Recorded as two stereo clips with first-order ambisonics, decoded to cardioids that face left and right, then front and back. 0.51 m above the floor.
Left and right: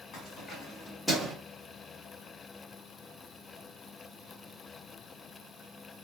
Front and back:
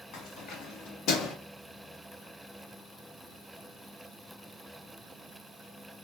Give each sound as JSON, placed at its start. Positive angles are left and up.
{"t": 0.1, "sound": "keys jangling", "azimuth_deg": 40, "distance_m": 1.9}